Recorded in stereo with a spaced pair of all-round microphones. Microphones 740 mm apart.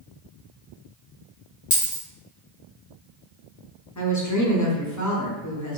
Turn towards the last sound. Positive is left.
turn(degrees=25)  # may be behind; listen again after turning